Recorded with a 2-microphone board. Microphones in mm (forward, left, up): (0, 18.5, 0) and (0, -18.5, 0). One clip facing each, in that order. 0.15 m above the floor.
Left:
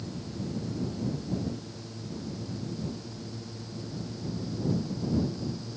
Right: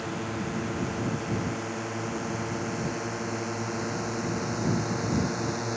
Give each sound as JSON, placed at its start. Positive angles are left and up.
{"t": 0.0, "sound": "a drone", "side_deg": -70}